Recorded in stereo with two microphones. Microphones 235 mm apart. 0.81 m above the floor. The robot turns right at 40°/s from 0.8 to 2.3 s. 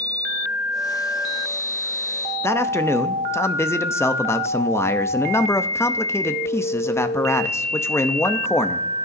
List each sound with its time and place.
2.4 s a man speaking: 10° left (ahead or behind), 0.8 m